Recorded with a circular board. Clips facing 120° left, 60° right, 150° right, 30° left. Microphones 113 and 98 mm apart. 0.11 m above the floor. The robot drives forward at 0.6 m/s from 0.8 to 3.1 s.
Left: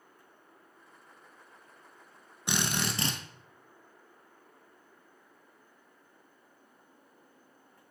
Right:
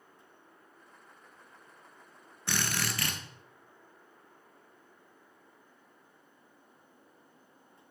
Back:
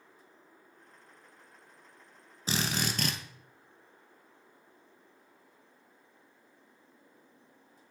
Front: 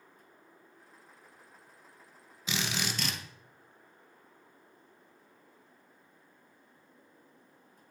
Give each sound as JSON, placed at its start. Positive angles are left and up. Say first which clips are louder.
{"t": 2.5, "sound": "a drill", "louder": "left 2 dB, back 2 dB", "azimuth_deg": -175, "distance_m": 0.7}